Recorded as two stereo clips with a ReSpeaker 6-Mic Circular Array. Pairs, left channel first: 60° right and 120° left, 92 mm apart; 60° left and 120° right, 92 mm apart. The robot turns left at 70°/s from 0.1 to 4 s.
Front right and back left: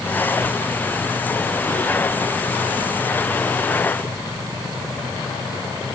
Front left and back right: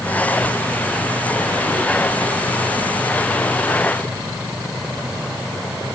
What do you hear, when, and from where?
Only background noise.